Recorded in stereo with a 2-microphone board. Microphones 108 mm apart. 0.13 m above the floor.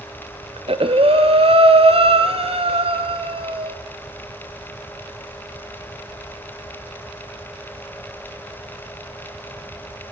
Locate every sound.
0.6 s breathing: 60° right (ahead or behind), 1.1 m